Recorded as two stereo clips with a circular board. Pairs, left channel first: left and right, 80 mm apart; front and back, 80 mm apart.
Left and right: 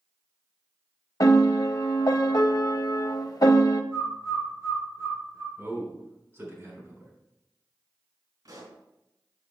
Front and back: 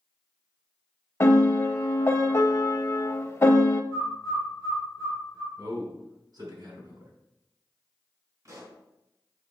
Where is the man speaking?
150° right, 4 m.